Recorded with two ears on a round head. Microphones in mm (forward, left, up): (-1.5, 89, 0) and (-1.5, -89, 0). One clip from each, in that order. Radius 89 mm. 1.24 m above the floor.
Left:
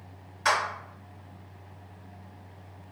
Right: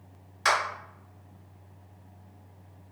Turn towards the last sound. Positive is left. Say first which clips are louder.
# even
turn(degrees=-25)  # may be behind; listen again after turning